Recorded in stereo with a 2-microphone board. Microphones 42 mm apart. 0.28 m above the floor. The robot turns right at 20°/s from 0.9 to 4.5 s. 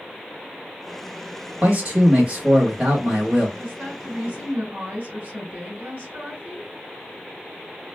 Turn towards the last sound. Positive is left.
turn(degrees=-50)  # may be behind; listen again after turning